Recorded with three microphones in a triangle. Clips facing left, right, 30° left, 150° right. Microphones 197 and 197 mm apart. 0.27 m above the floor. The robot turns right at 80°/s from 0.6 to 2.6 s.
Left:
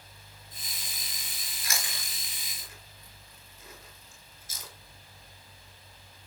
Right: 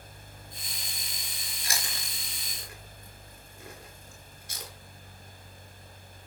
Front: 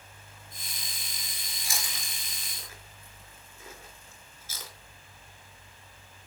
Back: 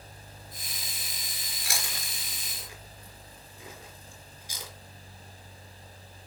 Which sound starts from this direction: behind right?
Chewing, at 1.6 s.